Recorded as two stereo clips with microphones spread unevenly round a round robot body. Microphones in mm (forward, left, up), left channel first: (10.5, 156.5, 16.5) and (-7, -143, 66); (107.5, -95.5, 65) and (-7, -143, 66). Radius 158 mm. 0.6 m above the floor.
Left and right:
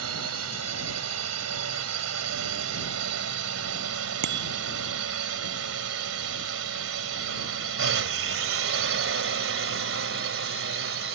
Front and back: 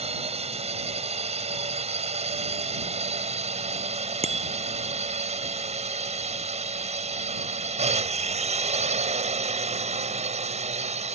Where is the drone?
135° right; by 11.1 s 145° right.